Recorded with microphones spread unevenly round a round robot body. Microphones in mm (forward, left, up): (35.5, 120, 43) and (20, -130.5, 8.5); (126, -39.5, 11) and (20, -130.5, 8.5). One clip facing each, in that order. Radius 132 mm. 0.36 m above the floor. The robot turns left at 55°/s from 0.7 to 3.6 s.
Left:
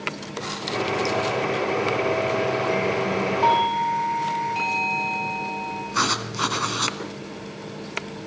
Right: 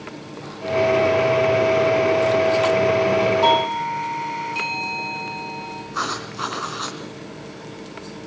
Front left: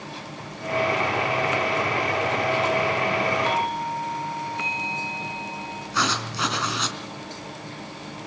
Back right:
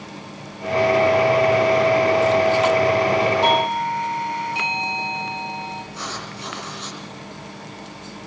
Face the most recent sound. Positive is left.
turn(degrees=35)